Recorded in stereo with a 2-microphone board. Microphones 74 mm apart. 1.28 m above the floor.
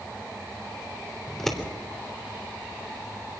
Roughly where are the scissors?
Centre.